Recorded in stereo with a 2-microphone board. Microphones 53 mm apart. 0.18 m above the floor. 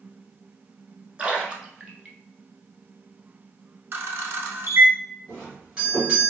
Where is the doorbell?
15° right (ahead or behind), 1.6 m.